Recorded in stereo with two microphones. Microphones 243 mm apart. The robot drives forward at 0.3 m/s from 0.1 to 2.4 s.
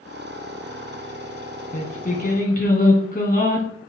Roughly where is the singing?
Left.